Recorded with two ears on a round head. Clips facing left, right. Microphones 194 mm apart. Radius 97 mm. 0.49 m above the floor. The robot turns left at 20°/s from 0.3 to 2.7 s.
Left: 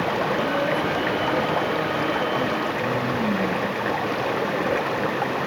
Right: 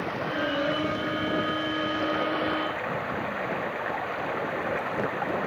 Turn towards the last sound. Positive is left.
turn(degrees=60)